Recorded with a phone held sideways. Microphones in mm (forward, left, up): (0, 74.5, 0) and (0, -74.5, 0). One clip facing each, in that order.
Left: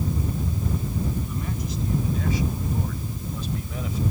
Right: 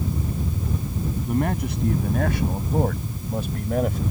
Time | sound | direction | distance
1.3 | a man speaking | 65° right (ahead or behind) | ?